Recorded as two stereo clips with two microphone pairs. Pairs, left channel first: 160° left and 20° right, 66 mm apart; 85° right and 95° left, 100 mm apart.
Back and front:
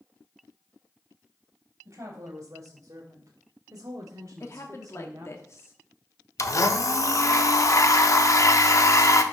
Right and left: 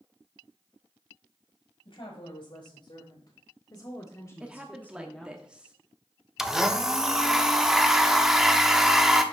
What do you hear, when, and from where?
1.9 s a woman speaking: 65° right, 3 m; by 5.4 s 10° left, 1.2 m
4.4 s a woman speaking: 175° left, 0.9 m
6.4 s a blender: 175° right, 0.7 m